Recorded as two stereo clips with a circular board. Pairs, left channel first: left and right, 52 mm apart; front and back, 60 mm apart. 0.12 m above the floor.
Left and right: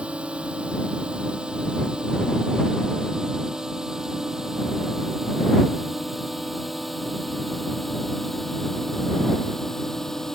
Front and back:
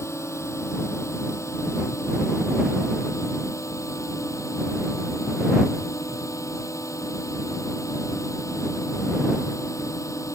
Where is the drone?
25° right; by 10.4 s 10° left.